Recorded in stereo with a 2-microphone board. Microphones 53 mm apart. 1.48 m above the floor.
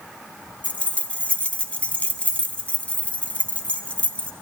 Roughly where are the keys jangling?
Left.